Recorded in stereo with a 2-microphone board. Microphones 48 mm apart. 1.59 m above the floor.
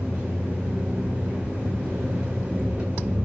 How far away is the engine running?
About 6 m.